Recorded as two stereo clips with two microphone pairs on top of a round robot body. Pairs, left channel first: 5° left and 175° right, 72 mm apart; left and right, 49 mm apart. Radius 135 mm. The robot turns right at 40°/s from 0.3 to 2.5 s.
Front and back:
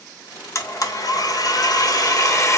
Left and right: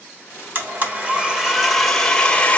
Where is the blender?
35° right, 1.0 m; by 2.6 s 40° left, 1.0 m.